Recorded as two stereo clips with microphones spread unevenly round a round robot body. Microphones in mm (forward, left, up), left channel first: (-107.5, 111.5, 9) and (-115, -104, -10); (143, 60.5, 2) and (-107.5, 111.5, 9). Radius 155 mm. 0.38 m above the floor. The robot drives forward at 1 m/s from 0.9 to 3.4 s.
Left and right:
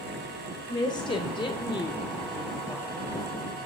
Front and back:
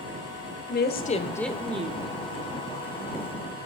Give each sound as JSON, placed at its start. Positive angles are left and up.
{"t": 0.7, "sound": "a woman speaking", "azimuth_deg": 15, "distance_m": 1.0}